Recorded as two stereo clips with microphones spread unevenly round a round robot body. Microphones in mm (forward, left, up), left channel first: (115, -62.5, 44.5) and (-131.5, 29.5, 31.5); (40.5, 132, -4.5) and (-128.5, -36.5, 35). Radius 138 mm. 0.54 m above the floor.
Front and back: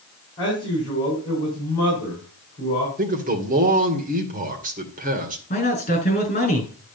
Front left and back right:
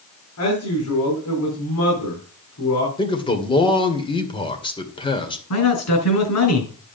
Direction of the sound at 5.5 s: 45° left.